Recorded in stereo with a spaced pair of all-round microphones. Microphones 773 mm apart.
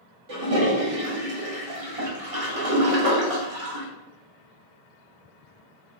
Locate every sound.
0.3 s a toilet flushing: 45° right (ahead or behind), 1.0 m